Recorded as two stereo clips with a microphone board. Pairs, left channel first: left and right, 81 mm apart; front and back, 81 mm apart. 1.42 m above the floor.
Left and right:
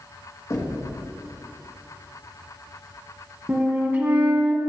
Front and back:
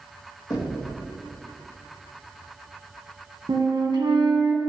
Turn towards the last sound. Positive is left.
turn(degrees=-150)